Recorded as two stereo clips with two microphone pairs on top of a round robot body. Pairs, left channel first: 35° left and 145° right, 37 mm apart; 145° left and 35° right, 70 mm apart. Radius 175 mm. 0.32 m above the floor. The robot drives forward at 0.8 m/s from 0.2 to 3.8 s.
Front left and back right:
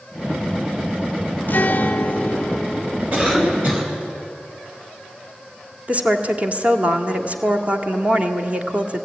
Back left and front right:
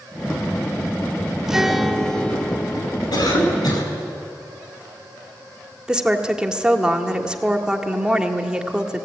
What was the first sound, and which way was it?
A guitar, 40° left.